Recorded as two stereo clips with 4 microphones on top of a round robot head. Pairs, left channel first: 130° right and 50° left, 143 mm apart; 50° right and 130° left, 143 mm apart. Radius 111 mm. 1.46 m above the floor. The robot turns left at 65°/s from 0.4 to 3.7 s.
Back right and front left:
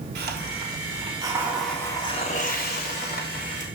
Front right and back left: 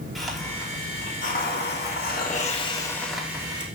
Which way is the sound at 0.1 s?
40° left.